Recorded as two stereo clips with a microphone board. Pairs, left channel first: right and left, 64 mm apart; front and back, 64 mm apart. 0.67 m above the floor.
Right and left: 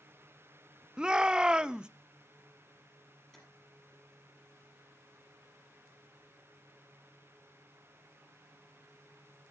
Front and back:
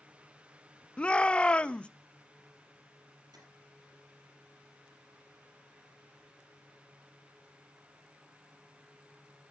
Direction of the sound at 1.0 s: 40° left.